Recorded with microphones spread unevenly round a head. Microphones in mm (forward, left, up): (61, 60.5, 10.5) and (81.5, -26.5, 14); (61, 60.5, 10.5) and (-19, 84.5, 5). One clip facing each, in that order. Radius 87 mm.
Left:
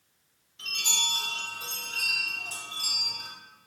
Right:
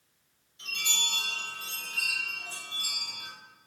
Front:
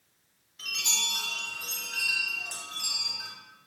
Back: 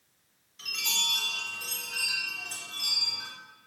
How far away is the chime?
About 2.0 m.